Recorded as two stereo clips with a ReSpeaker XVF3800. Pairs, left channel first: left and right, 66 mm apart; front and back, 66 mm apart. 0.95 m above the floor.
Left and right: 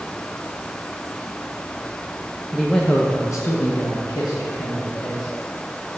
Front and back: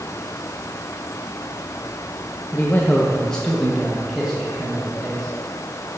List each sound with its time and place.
2.5 s a man speaking: 15° right, 0.7 m; by 5.3 s 100° left, 2.5 m